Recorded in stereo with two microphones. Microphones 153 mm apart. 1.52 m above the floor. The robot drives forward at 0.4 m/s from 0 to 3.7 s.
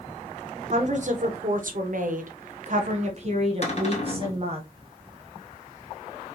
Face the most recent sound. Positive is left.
turn(degrees=45)  # may be behind; listen again after turning